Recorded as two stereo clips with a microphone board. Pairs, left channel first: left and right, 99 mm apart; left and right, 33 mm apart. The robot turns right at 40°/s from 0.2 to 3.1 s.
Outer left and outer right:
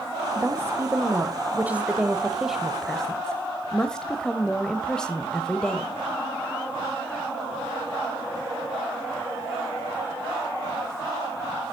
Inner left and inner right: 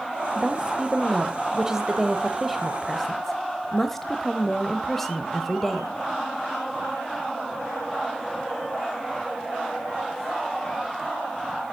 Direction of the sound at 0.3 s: 25° right (ahead or behind).